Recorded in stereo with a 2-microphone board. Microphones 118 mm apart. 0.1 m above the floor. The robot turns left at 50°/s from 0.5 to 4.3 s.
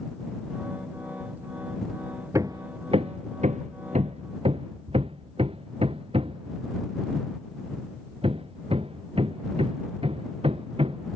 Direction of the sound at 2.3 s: 25° right (ahead or behind).